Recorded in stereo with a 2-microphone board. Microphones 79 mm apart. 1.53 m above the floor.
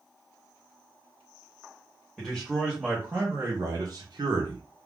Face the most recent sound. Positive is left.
turn(degrees=-70)  # may be behind; listen again after turning